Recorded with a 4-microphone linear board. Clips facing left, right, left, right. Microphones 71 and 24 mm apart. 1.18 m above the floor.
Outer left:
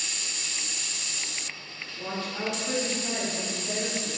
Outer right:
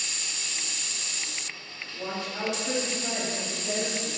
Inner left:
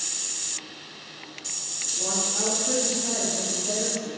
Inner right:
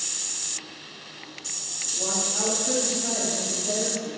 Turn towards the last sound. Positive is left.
turn(degrees=-15)  # may be behind; listen again after turning